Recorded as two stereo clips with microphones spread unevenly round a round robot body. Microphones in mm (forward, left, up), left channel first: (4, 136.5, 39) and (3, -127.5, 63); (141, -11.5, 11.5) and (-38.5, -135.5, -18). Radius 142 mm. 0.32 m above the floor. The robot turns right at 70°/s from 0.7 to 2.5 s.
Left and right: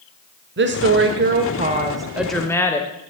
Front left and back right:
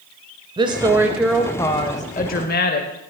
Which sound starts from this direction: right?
A woman speaking, at 0.6 s.